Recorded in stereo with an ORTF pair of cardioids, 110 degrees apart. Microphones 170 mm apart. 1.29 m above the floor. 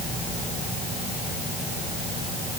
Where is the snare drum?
No snare drum in this recording.